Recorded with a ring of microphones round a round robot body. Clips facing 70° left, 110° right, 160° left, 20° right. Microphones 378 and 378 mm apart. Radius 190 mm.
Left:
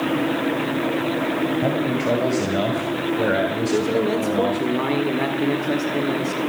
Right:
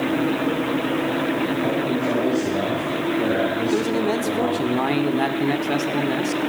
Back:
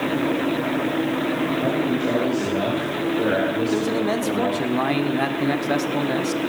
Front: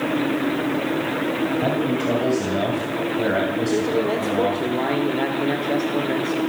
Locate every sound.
1.6 s a man speaking: 40° left, 2.5 m
3.7 s a man speaking: straight behind, 1.3 m